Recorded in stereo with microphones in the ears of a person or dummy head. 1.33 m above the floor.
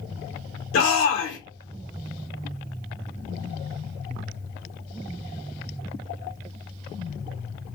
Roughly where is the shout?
Left.